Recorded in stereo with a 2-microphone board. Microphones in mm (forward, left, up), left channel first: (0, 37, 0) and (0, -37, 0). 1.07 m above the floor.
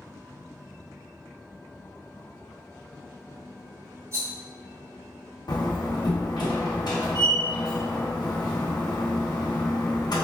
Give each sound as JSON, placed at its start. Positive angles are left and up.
{"t": 4.1, "sound": "a rattle", "side_deg": -45, "distance_m": 1.9}
{"t": 5.5, "sound": "a door slam", "side_deg": 80, "distance_m": 1.0}